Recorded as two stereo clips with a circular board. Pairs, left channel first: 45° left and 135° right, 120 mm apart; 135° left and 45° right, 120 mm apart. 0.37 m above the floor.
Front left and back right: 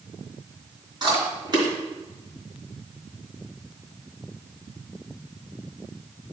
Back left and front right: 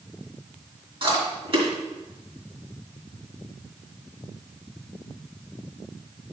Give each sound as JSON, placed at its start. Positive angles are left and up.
{"t": 1.0, "sound": "chewing", "azimuth_deg": -85, "distance_m": 3.5}